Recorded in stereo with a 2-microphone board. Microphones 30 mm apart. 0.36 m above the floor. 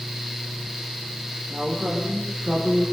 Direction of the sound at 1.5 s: 25° right (ahead or behind).